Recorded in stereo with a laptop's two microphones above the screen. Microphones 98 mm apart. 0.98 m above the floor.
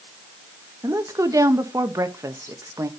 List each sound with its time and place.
0.8 s a woman speaking: 35° right (ahead or behind), 1.1 m